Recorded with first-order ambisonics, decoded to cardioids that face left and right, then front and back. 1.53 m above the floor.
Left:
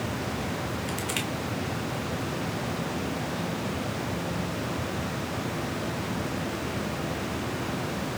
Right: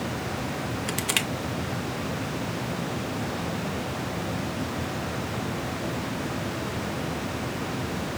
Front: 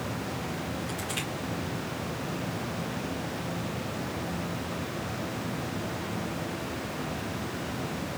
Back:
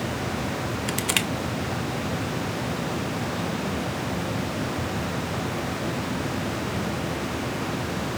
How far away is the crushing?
About 0.6 m.